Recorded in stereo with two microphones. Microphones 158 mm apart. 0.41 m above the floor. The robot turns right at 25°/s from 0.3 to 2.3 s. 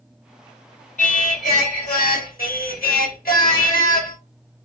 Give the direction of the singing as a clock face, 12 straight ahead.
10 o'clock.